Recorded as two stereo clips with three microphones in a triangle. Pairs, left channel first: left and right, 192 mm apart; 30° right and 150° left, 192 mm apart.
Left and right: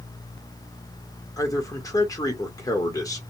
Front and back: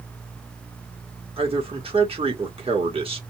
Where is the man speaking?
140° left, 1.3 m.